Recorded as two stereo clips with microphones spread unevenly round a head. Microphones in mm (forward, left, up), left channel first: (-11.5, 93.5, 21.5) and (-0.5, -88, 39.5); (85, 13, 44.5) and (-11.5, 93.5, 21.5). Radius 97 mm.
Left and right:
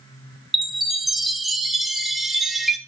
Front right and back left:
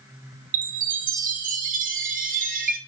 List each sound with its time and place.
0.5 s a chime: 175° right, 0.5 m